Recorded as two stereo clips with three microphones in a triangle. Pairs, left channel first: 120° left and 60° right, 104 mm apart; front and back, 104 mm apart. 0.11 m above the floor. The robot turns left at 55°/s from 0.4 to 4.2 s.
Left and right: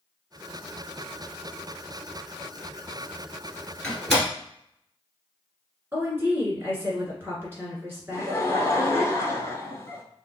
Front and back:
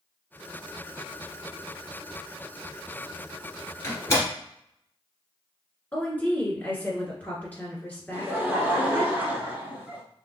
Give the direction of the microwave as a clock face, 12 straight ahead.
I don't hear a microwave.